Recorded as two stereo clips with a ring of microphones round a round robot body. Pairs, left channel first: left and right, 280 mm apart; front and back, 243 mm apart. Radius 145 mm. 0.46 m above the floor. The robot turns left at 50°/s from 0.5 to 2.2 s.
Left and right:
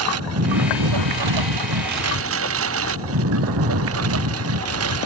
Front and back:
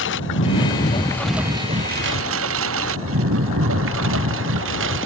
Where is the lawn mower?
50° right; by 5.1 s 130° right.